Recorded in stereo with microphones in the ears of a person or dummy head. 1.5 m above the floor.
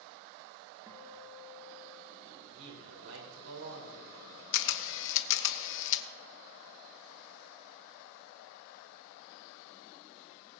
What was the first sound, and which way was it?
A guitar, 10° right (ahead or behind).